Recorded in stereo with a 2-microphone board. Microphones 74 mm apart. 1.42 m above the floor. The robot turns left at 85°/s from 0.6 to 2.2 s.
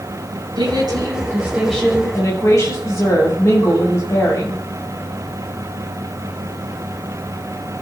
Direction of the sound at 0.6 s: 90° right.